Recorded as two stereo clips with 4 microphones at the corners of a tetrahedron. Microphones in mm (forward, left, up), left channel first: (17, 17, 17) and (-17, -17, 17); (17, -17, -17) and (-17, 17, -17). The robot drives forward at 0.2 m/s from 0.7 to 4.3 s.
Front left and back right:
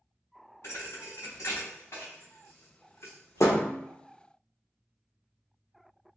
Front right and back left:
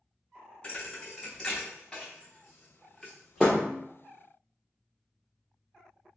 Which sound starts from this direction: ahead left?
A thud, at 0.6 s.